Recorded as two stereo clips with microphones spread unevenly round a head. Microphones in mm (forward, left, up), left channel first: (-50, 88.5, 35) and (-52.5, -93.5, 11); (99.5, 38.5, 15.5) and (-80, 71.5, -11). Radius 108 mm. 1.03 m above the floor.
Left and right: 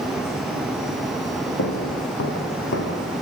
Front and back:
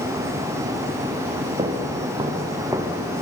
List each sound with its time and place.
1.6 s footsteps: 105° left, 4.5 m; by 3.0 s 90° left, 3.5 m